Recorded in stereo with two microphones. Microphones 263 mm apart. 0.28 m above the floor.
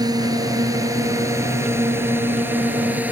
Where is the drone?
15° right (ahead or behind); by 3.1 s 5° right (ahead or behind).